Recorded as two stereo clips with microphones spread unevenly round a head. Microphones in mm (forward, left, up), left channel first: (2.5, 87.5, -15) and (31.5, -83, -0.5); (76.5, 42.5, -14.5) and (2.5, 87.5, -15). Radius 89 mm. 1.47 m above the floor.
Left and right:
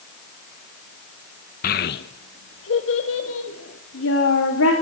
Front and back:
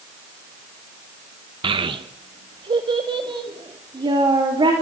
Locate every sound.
1.6 s a child speaking: 140° left, 0.9 m; by 4.7 s 120° left, 4 m